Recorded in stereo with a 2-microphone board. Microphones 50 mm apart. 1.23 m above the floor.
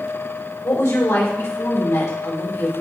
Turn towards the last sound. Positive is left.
turn(degrees=75)  # may be behind; listen again after turning